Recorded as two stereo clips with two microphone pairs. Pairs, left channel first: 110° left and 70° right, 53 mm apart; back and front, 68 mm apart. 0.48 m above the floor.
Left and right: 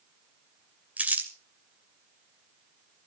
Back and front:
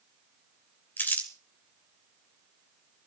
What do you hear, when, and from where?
1.0 s crumpling: 125° right, 2 m